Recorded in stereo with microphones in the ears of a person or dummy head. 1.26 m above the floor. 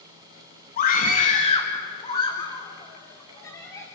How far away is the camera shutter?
No camera shutter in this recording.